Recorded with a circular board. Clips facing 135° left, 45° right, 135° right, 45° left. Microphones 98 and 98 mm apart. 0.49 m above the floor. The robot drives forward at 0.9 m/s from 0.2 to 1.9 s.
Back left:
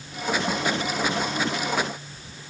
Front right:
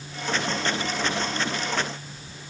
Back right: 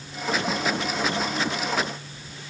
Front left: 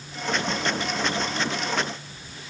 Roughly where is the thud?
I don't hear a thud.